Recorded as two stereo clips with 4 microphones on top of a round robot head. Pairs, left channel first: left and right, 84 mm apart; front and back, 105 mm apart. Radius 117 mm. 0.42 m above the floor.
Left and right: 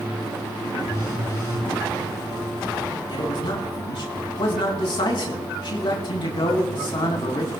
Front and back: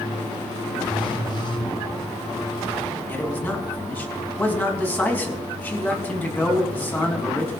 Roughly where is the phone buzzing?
Ahead left.